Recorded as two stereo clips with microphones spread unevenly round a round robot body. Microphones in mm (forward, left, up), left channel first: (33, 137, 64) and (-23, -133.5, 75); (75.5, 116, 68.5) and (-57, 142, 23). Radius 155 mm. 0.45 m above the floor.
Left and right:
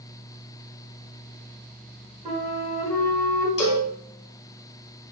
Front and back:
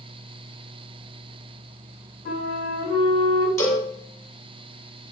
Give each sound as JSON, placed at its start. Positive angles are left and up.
{"t": 2.2, "sound": "a flute", "azimuth_deg": -35, "distance_m": 1.8}
{"t": 3.6, "sound": "a cowbell", "azimuth_deg": 55, "distance_m": 1.7}